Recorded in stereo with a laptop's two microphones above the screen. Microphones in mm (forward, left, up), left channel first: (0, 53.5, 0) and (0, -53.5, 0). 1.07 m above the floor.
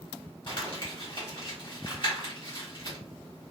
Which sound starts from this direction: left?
Crumpling, at 0.5 s.